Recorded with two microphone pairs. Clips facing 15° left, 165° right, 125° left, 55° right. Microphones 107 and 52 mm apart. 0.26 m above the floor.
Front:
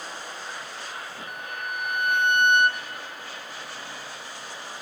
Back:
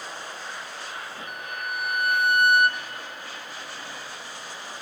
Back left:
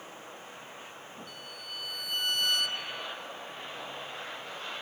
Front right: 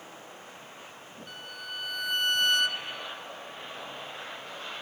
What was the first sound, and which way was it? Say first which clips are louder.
A violin: back 1 dB, front right 3 dB; 85° right.